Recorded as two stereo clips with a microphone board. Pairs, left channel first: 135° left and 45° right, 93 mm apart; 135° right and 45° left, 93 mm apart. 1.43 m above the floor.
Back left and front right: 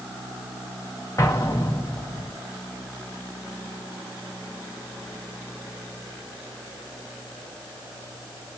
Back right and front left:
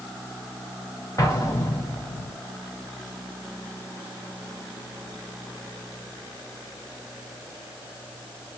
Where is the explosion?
Straight behind, 0.9 m.